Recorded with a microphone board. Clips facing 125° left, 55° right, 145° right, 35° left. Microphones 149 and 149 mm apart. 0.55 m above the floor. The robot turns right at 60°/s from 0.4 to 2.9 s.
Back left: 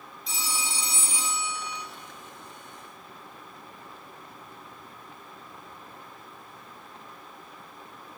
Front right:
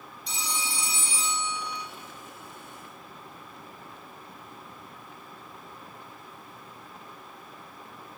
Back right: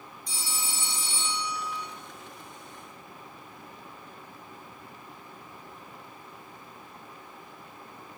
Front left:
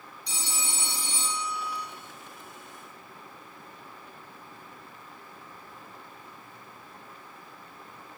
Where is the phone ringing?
35° left, 0.6 m; by 1.8 s 120° left, 0.6 m.